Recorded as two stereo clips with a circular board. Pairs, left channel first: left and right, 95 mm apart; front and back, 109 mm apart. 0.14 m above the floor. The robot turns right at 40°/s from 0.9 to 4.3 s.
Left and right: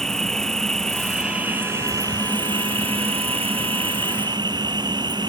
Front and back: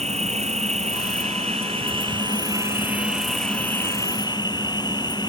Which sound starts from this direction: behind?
An insect, at 0.0 s.